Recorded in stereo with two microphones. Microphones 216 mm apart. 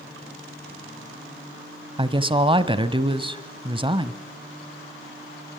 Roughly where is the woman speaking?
Right.